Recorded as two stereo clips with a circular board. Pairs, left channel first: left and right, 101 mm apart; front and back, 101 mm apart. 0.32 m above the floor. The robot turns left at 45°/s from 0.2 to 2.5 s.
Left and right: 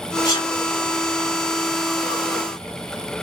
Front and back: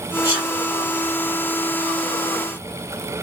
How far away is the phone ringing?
No phone ringing in this recording.